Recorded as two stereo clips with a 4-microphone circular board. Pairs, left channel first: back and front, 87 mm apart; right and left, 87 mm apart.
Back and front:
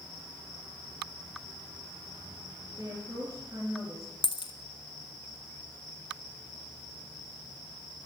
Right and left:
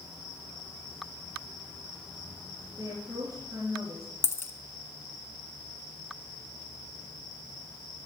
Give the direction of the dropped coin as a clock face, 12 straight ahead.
5 o'clock.